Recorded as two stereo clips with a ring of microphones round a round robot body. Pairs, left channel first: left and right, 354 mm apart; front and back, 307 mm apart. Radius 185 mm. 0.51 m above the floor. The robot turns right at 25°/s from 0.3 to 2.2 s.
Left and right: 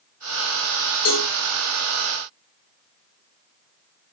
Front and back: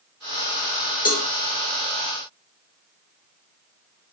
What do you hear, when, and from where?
1.1 s a cowbell: 65° left, 0.9 m; by 1.3 s 70° left, 0.9 m